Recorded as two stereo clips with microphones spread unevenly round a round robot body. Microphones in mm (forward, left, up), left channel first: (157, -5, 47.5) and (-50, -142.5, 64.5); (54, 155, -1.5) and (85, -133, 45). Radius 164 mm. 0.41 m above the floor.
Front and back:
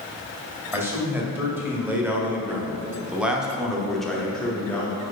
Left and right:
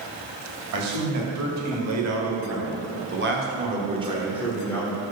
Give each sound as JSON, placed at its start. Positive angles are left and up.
{"t": 0.7, "sound": "a man speaking", "azimuth_deg": -65, "distance_m": 2.5}